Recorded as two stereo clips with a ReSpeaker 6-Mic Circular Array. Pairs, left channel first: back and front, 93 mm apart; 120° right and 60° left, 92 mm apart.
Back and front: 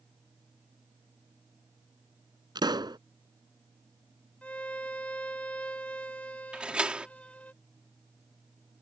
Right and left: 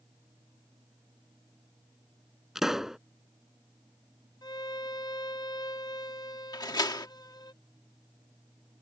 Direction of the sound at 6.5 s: 80° right.